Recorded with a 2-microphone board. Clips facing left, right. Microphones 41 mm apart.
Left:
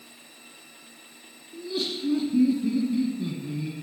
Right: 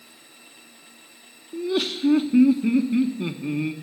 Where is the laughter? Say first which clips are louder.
Right 6 dB; 60° right (ahead or behind), 1.2 m.